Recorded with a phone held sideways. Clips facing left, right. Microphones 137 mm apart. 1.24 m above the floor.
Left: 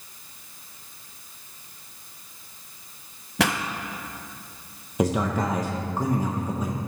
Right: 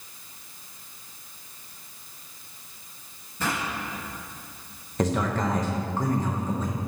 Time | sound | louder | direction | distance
3.4 | a pop | left 5 dB | 85° left | 0.6 m
5.0 | a man speaking | left 2 dB | 10° left (ahead or behind) | 0.7 m